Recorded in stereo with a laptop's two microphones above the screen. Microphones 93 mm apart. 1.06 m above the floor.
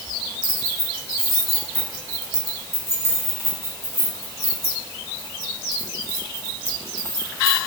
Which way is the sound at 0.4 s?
30° left (ahead or behind).